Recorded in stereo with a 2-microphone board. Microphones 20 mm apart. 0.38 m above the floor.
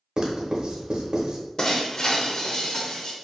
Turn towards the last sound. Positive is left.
turn(degrees=30)  # may be behind; listen again after turning